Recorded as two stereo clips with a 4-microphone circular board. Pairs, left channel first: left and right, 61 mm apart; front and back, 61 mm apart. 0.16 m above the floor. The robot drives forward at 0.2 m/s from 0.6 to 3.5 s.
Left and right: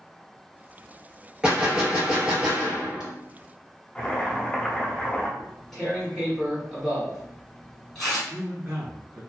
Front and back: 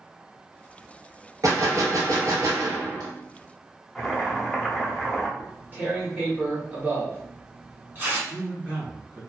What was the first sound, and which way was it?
A gunshot, 165° right.